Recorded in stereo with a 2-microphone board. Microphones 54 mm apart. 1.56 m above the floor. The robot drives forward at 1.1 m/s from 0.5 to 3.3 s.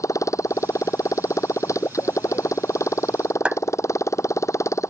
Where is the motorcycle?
75° left (ahead or behind); by 4.9 s 70° left (ahead or behind).